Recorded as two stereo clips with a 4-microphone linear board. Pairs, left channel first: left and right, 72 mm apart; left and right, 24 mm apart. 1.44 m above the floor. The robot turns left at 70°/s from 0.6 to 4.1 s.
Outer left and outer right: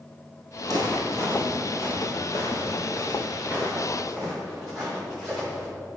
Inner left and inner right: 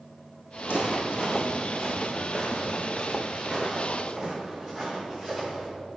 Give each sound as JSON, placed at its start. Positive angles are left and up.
{"t": 0.6, "sound": "footsteps", "side_deg": -60, "distance_m": 3.0}